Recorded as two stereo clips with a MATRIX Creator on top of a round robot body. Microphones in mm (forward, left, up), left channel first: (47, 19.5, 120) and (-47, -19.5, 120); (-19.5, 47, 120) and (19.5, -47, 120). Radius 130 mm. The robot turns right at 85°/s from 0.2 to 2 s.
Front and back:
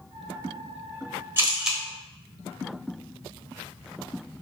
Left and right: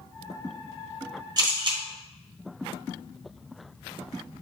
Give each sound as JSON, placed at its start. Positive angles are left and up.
{"t": 1.4, "sound": "a camera shutter", "azimuth_deg": -100, "distance_m": 1.0}